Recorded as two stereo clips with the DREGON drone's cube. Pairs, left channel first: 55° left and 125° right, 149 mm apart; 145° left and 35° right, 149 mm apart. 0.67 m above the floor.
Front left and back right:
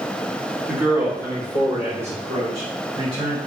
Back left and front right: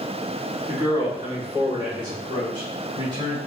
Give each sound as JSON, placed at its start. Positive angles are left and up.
{"t": 0.7, "sound": "a man speaking", "azimuth_deg": -60, "distance_m": 1.0}